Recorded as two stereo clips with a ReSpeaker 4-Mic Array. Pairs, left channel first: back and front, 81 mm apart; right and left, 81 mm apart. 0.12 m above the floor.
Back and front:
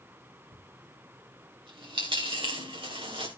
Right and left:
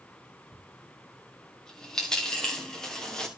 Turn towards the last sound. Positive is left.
turn(degrees=-5)